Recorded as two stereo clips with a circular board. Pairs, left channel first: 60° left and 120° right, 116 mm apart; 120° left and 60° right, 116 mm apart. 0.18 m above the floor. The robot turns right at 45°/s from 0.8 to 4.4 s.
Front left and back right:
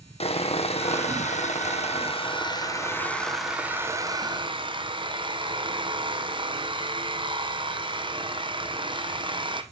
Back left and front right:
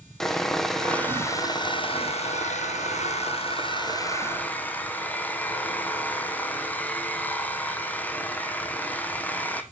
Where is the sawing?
35° left, 1.7 m; by 9.6 s 165° right, 1.7 m.